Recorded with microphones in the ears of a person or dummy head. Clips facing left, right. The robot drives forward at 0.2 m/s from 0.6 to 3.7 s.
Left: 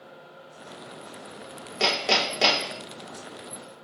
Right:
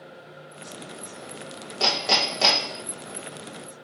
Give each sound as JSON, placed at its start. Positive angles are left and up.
{"t": 1.8, "sound": "hammering", "side_deg": 25, "distance_m": 0.9}